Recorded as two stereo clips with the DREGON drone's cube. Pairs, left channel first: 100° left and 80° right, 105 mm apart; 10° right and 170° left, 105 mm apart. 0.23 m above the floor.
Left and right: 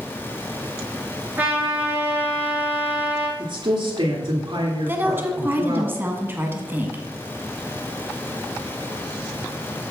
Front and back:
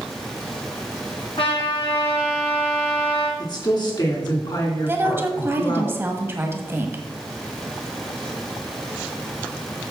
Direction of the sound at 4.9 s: 135° right.